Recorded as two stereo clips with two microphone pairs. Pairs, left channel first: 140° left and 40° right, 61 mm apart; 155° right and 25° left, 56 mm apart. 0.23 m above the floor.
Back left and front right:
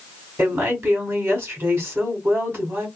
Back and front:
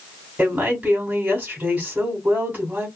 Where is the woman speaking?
25° right, 2 m.